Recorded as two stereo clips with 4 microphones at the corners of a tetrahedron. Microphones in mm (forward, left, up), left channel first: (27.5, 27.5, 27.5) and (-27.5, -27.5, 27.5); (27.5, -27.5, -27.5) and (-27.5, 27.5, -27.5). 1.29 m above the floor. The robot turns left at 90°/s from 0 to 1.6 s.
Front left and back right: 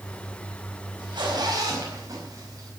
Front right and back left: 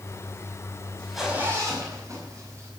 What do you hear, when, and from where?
1.0 s a zipper: 120° right, 5 m; by 2.7 s 175° right, 5 m